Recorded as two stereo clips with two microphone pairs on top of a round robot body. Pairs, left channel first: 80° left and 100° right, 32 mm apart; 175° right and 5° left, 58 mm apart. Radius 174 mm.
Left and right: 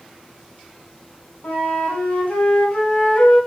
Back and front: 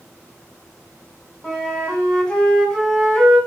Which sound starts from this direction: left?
A flute, at 1.4 s.